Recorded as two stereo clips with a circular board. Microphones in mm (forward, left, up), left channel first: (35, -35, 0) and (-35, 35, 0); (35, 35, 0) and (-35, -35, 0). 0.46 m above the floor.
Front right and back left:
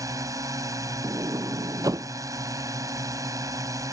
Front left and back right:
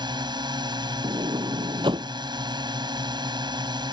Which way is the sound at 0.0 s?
170° right.